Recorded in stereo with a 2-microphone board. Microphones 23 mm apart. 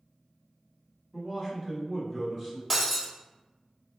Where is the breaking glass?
15° right (ahead or behind), 1.1 m.